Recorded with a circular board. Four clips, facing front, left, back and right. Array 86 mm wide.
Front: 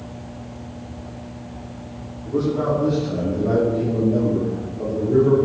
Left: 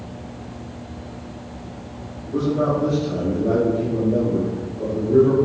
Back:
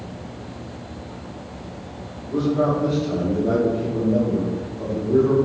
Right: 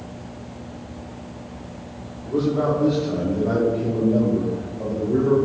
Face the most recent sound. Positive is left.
turn(degrees=20)